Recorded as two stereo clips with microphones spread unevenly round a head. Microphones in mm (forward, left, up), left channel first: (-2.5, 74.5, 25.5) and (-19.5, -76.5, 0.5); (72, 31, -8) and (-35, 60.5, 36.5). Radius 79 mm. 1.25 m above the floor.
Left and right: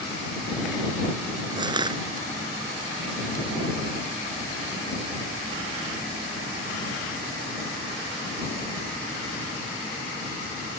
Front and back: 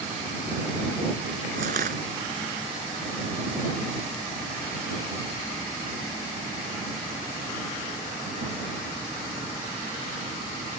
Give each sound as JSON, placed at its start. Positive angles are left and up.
{"t": 1.6, "sound": "crushing", "azimuth_deg": -160}